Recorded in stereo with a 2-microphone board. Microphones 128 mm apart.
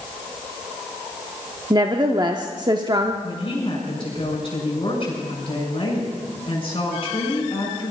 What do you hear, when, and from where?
1.7 s a woman speaking: 35° right (ahead or behind), 0.8 m
3.2 s a woman speaking: 40° left (ahead or behind), 6 m